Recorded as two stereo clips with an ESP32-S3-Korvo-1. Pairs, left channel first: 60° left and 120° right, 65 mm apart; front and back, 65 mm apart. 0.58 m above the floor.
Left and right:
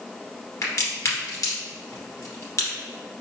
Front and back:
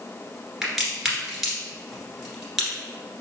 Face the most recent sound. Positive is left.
turn(degrees=90)